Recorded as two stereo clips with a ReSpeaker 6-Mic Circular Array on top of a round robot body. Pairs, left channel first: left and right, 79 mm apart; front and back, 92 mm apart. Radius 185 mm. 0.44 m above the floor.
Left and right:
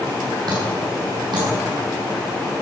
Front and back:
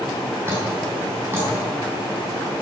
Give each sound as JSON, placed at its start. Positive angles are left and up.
{"t": 0.5, "sound": "dripping", "azimuth_deg": -115, "distance_m": 6.0}